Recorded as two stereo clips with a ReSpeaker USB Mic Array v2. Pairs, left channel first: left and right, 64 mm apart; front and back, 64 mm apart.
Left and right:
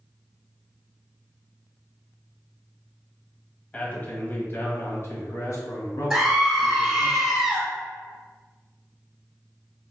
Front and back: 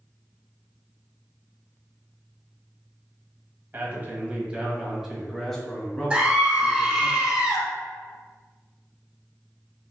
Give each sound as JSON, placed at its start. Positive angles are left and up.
{"t": 3.7, "sound": "a man speaking", "azimuth_deg": 150, "distance_m": 1.2}
{"t": 6.1, "sound": "a scream", "azimuth_deg": -155, "distance_m": 1.1}